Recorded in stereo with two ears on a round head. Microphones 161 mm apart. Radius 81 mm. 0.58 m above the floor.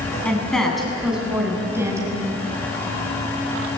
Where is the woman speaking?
5° left (ahead or behind), 6.5 m; by 2.2 s 20° right (ahead or behind), 6 m.